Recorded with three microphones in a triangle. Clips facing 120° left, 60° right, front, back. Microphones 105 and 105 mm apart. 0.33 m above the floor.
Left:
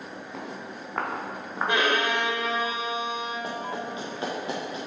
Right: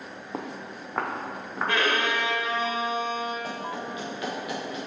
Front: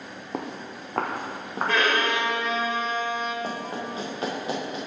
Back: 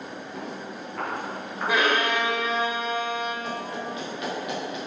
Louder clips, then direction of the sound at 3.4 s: Left 1 dB, even; 55° left.